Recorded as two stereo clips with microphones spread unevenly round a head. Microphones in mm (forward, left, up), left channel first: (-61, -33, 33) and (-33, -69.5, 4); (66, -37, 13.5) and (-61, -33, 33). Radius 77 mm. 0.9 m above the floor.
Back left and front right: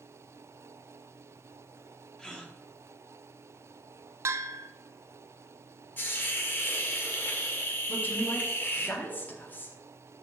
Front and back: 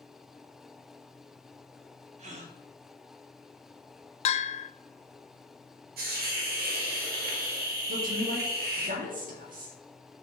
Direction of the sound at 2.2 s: 150° right.